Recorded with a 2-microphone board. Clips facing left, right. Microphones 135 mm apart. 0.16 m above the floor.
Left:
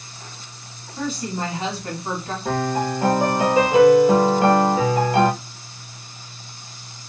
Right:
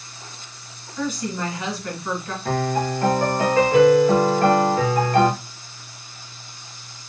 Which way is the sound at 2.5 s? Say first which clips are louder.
Even; 15° left (ahead or behind).